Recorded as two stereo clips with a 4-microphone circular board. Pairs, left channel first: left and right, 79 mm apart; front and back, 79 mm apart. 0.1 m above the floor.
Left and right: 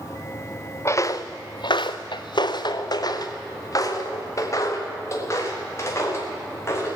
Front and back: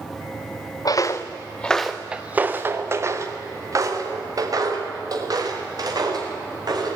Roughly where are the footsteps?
Ahead left.